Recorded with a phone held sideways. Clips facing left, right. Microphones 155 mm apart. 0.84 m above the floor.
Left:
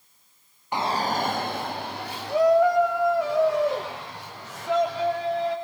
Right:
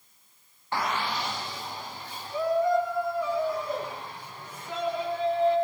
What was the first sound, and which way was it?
A shout, 15° left (ahead or behind).